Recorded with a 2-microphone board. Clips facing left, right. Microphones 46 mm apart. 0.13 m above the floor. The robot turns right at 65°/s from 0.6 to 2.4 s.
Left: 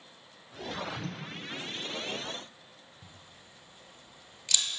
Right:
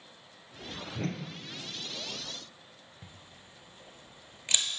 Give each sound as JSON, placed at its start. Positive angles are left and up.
{"t": 0.9, "sound": "a whoosh", "side_deg": -60, "distance_m": 0.6}
{"t": 3.0, "sound": "a camera shutter", "side_deg": -35, "distance_m": 0.9}